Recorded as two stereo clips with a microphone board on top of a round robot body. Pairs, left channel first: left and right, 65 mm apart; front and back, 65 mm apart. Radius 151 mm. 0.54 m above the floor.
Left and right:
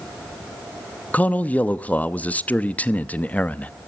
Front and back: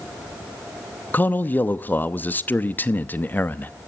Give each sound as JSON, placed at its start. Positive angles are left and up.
{"t": 1.1, "sound": "a man speaking", "azimuth_deg": 40, "distance_m": 1.0}